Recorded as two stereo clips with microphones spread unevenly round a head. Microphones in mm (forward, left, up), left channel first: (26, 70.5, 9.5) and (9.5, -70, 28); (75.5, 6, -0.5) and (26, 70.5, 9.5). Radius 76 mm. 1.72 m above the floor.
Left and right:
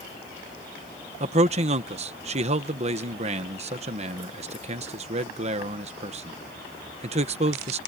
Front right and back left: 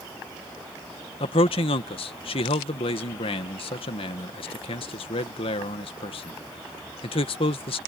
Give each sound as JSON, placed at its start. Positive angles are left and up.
{"t": 1.2, "sound": "a man speaking", "azimuth_deg": -55}